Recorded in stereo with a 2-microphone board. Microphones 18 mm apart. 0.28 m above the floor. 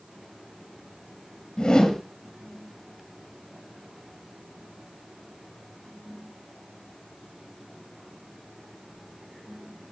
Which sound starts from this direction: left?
A whoosh, at 1.6 s.